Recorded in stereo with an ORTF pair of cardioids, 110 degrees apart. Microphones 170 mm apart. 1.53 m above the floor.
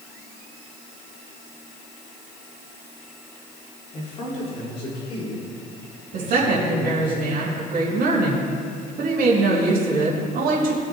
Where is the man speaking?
35° left, 4 m; by 7.1 s 30° left, 6 m.